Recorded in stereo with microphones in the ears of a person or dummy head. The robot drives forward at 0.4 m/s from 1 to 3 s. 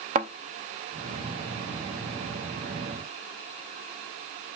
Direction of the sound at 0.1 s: 35° right (ahead or behind).